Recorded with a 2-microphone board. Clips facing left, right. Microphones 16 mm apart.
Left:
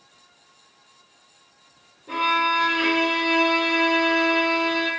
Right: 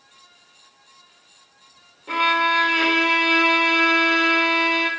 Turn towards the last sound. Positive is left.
turn(degrees=-80)